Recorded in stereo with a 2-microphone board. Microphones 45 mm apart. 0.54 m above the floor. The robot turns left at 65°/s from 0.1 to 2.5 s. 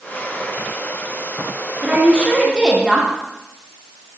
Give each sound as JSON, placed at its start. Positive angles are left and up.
{"t": 1.8, "sound": "a woman speaking", "azimuth_deg": -125, "distance_m": 1.1}